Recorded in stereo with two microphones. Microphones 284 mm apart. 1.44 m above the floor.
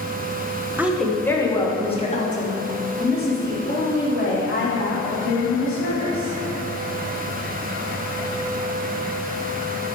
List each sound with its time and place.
0.8 s a woman speaking: 5° right (ahead or behind), 1.0 m; by 6.3 s 45° left (ahead or behind), 4 m